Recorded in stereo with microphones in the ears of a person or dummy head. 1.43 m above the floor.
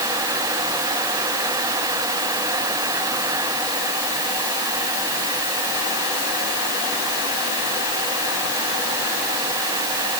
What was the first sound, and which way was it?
Only background noise.